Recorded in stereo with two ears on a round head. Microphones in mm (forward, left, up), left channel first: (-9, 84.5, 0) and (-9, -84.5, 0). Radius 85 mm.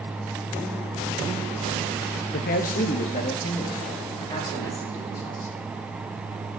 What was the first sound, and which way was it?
A man speaking, 55° left (ahead or behind).